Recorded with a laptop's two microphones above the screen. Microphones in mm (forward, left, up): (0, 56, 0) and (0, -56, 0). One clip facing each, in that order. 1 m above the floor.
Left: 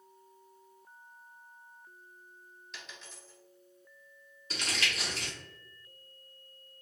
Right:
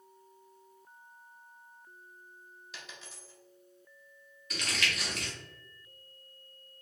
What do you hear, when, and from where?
2.7 s a dropped coin: 5° right (ahead or behind), 1.6 m
4.5 s crumpling: 30° left (ahead or behind), 2.0 m